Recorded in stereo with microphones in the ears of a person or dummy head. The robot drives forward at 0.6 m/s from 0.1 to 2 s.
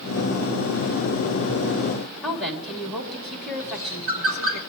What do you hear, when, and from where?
2.2 s a woman speaking: centre (ahead or behind), 2.0 m
3.6 s a bird: 25° right (ahead or behind), 3.5 m